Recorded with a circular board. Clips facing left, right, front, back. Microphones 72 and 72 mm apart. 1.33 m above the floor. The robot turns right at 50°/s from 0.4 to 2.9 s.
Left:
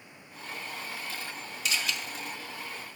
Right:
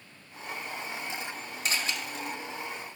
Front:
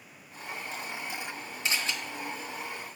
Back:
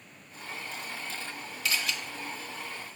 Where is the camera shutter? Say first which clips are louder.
Even, even; 60° right, 1.4 m; by 1.9 s 45° right, 1.4 m.